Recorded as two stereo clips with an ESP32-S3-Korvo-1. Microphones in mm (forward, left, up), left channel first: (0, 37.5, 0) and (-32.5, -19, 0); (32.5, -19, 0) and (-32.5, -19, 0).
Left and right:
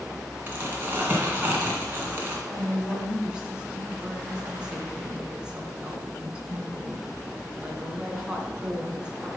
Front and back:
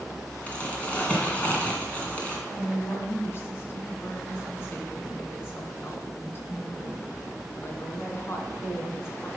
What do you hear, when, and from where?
0.5 s crumpling: 65° right, 2.5 m
2.5 s a woman speaking: 45° right, 2.5 m